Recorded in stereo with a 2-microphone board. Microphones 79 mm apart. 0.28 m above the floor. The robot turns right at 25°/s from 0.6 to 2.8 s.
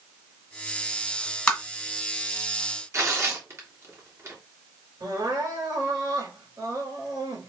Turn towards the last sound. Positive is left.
turn(degrees=-65)  # may be behind; listen again after turning